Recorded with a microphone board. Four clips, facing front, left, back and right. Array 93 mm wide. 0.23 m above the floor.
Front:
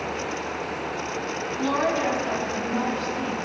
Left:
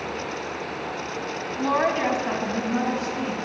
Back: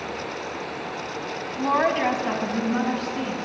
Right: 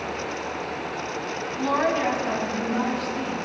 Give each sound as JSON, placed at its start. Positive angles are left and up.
{"t": 1.6, "sound": "a woman speaking", "azimuth_deg": 155, "distance_m": 1.6}